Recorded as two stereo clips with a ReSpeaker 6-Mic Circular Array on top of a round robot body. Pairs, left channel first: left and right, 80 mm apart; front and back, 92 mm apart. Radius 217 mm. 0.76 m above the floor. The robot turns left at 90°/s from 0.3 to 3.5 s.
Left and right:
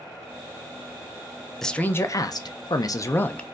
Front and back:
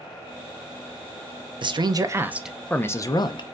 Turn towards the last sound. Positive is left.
turn(degrees=5)